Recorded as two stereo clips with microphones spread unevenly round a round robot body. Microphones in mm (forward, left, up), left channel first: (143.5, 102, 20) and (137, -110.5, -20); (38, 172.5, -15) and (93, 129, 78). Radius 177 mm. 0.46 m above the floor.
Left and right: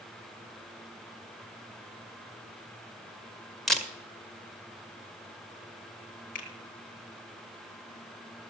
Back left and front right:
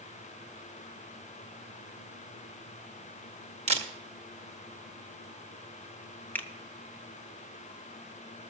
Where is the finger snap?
155° left, 1.1 m.